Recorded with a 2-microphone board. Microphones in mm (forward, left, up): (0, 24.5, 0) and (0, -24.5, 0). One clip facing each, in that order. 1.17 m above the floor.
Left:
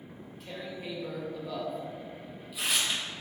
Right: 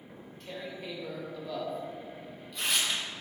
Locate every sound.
0.1 s tearing paper: 5° left (ahead or behind), 2 m